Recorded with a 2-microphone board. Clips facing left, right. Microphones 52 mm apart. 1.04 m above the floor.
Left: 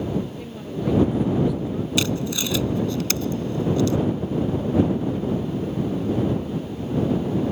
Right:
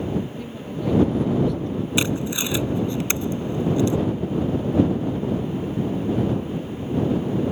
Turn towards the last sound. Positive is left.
turn(degrees=-25)  # may be behind; listen again after turning